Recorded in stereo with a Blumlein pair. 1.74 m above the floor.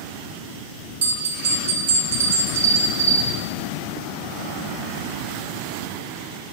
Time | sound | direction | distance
1.0 | a bell | 60° right | 0.7 m